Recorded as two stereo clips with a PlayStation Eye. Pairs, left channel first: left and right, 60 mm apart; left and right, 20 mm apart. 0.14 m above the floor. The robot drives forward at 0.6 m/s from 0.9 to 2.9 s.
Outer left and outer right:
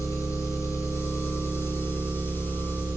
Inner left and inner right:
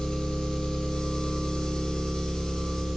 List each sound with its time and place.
0.0 s an engine running: 60° left (ahead or behind), 0.8 m; by 3.0 s 30° left (ahead or behind), 1.3 m